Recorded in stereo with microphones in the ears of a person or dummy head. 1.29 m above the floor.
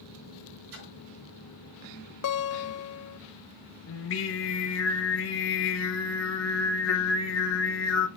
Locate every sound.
0.7 s a splash: 70° right (ahead or behind), 2.5 m
2.2 s a guitar: 75° left (ahead or behind), 0.7 m
3.9 s singing: 75° left (ahead or behind), 1.2 m